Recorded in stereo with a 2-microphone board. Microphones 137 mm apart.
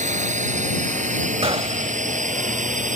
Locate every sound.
0.0 s a drone: 60° right (ahead or behind); by 3.0 s 65° right (ahead or behind)
1.4 s a gunshot: 45° right (ahead or behind)